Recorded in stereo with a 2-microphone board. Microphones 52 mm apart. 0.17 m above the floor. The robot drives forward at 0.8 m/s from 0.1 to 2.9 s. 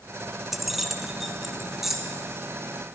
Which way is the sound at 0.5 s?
5° right (ahead or behind).